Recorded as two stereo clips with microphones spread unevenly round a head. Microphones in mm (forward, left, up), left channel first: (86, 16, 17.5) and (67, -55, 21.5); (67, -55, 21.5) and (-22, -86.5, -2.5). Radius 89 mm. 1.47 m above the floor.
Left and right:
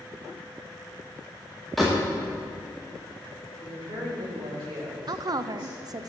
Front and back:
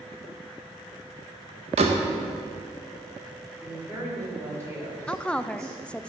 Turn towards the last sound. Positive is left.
turn(degrees=-65)